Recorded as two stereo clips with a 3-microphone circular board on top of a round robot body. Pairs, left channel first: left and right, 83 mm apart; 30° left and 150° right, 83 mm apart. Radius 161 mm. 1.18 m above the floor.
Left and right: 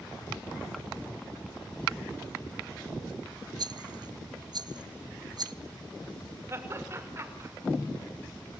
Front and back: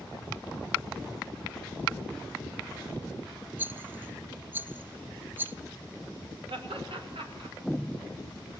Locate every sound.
3.6 s a rattle: 85° right, 1.0 m
6.5 s laughter: 150° right, 6 m